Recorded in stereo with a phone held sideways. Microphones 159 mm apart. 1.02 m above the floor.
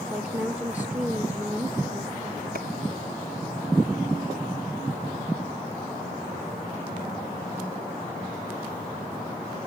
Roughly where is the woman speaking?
Centre.